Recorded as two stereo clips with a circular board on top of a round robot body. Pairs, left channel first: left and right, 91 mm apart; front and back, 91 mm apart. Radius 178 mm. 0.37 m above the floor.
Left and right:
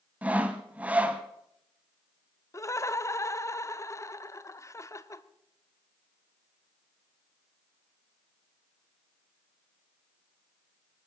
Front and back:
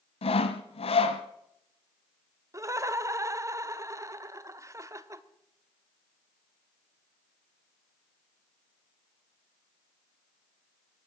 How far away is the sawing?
About 0.7 m.